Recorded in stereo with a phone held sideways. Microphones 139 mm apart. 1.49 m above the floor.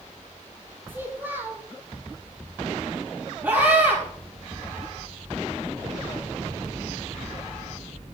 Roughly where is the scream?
Centre.